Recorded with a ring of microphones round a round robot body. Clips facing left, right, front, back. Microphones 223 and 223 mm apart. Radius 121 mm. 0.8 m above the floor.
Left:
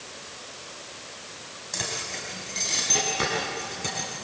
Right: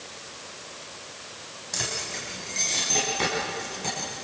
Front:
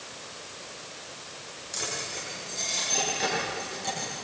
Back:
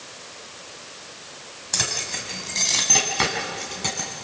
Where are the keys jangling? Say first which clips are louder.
Even, back 3 dB; 175° right, 3 m; by 4.2 s 165° left, 4.5 m.